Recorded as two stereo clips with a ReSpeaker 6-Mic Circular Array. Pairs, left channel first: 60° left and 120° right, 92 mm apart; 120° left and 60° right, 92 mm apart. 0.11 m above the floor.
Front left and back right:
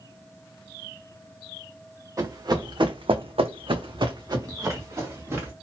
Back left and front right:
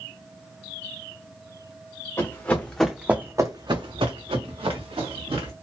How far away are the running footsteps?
About 0.8 m.